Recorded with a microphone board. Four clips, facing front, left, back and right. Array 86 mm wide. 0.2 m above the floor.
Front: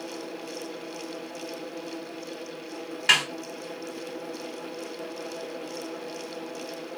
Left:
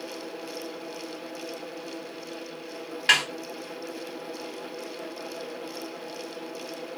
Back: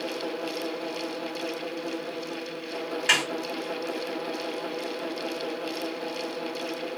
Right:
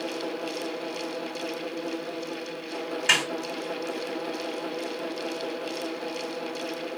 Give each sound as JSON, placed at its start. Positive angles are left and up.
{"t": 3.1, "sound": "a snare drum", "azimuth_deg": 70, "distance_m": 1.1}